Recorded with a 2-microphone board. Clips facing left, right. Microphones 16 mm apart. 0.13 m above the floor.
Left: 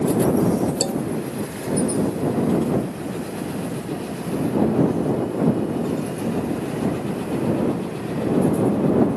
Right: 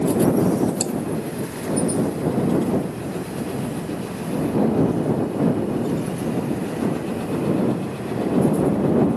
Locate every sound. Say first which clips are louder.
0.8 s a man speaking: left 2 dB; 65° left (ahead or behind)